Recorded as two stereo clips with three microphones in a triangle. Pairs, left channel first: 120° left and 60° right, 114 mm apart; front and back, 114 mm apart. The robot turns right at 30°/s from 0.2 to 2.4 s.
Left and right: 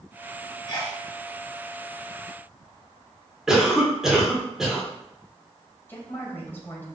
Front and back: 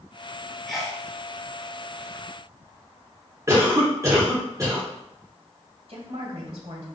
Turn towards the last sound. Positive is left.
turn(degrees=-165)